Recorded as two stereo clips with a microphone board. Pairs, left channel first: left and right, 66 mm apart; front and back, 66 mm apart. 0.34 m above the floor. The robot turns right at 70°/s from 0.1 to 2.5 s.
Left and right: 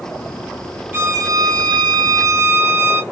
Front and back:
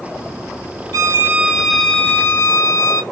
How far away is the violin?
About 0.5 m.